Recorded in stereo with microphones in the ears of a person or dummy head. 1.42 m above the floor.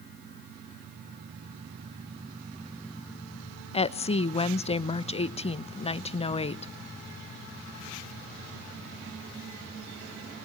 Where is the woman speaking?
30° left (ahead or behind), 0.8 m.